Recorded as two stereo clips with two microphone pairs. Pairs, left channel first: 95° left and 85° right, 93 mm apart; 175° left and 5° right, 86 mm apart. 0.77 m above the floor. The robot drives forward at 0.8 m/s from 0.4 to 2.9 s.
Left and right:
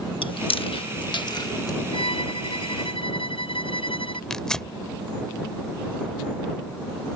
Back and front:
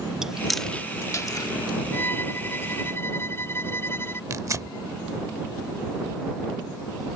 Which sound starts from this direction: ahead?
Tearing paper, at 4.3 s.